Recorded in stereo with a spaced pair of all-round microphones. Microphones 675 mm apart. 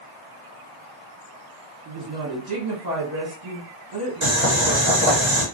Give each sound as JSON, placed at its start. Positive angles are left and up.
{"t": 1.9, "sound": "a woman speaking", "side_deg": -70, "distance_m": 1.5}
{"t": 4.2, "sound": "boiling", "side_deg": -45, "distance_m": 1.2}